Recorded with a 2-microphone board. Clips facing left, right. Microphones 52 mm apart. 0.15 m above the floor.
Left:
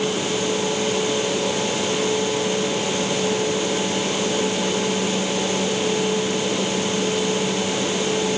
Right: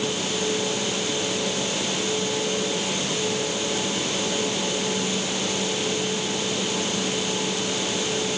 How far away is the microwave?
I don't hear a microwave.